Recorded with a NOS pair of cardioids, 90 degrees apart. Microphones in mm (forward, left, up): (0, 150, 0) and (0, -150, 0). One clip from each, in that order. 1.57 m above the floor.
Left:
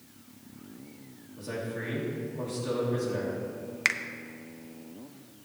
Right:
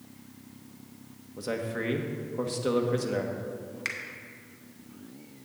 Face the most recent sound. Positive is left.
turn(degrees=35)